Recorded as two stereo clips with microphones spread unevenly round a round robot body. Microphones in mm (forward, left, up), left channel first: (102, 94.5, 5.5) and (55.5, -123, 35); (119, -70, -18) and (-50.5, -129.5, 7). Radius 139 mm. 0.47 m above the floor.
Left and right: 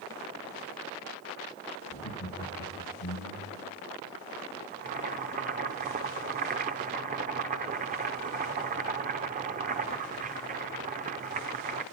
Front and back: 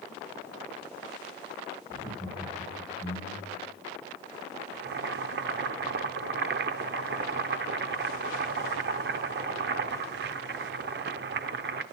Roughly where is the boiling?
Behind.